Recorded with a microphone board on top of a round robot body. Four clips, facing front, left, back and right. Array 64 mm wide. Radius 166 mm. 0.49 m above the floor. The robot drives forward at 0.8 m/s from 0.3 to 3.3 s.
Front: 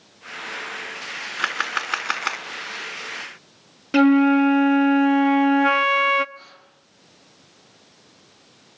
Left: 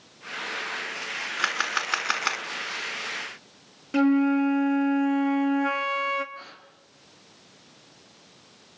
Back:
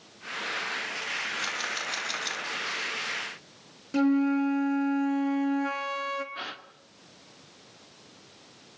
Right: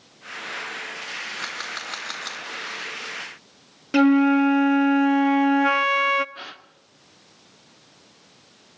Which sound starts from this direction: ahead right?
A flute, at 3.9 s.